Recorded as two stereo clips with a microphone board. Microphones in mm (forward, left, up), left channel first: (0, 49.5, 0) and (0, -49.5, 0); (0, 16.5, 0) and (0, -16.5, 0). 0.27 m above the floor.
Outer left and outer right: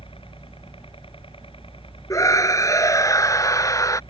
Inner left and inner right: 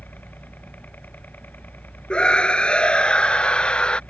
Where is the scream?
35° left (ahead or behind).